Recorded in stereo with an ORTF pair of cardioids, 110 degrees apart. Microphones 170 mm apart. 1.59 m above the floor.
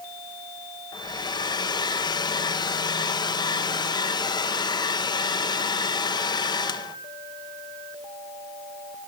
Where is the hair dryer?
25° left, 1.5 m.